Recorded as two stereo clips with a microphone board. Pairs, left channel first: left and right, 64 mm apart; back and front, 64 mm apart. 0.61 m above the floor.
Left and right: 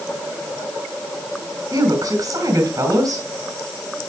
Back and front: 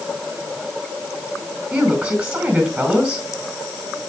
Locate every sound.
1.7 s a woman speaking: 80° right, 4.5 m